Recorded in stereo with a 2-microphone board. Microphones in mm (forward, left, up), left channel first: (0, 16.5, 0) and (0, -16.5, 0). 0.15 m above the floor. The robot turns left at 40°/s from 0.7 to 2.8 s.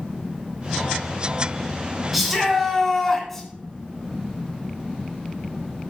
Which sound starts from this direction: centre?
A shout, at 2.1 s.